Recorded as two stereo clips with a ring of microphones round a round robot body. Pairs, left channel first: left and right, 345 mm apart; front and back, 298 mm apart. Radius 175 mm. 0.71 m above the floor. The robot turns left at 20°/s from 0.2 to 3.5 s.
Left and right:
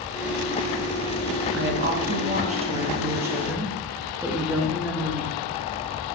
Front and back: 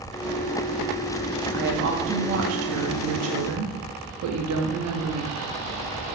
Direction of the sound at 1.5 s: 135° right.